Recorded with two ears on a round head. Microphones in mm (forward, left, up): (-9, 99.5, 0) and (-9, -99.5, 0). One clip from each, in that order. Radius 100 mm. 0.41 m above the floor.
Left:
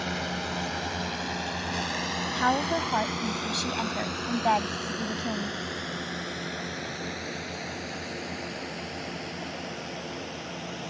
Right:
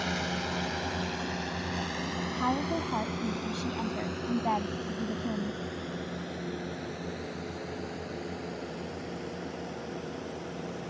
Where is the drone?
Centre (ahead or behind); by 10.9 s 75° left (ahead or behind).